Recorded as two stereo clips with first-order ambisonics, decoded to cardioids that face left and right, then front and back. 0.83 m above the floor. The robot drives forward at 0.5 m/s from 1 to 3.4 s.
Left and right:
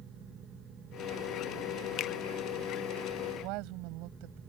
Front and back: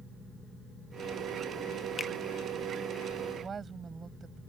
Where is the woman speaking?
110° right.